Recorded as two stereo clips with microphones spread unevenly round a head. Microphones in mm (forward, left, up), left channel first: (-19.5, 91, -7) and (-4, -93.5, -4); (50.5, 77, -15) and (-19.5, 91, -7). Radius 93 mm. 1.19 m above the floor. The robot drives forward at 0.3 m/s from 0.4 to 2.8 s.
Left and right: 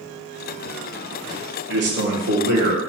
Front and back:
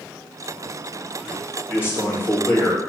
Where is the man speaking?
105° right, 1.2 m; by 2.8 s 120° right, 1.3 m.